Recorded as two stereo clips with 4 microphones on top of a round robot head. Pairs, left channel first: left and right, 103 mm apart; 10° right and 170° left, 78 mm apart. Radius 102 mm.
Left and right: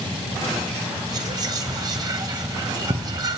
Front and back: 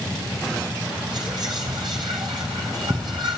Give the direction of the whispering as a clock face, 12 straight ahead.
5 o'clock.